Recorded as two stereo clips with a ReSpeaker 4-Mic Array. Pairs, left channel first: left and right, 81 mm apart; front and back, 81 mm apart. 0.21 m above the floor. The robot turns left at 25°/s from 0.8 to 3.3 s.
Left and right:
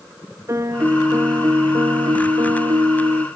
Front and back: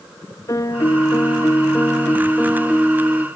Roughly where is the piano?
Ahead right.